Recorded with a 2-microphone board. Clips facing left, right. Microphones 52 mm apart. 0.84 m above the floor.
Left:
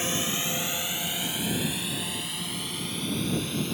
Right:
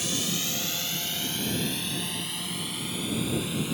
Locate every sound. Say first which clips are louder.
0.0 s a drone: left 2 dB; 30° left (ahead or behind); by 3.8 s 5° right (ahead or behind)